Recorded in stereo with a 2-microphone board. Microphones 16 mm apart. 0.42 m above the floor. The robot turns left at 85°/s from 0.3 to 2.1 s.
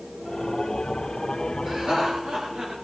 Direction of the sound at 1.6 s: 55° right.